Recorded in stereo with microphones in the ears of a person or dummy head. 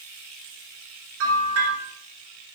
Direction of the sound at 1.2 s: 85° right.